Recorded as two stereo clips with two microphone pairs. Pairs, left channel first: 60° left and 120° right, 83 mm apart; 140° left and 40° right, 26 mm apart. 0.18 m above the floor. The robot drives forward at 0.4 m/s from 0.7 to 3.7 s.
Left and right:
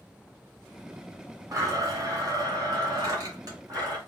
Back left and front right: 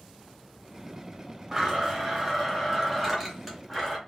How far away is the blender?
About 1.4 m.